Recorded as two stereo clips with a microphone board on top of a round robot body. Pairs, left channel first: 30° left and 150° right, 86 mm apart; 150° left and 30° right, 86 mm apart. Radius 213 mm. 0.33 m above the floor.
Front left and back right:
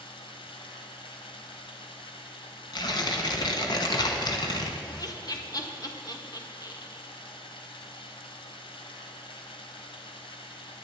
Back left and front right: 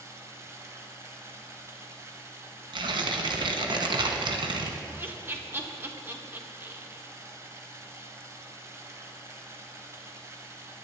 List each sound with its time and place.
0.0 s running water: 25° left, 1.3 m
2.7 s tearing paper: 5° right, 0.9 m
4.9 s laughter: 25° left, 1.6 m